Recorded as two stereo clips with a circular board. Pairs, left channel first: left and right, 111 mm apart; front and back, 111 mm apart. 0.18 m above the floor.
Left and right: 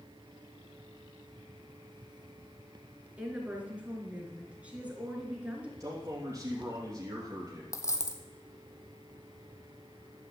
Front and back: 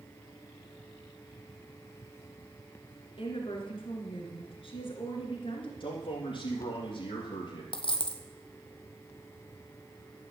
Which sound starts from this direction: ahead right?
A man speaking, at 5.8 s.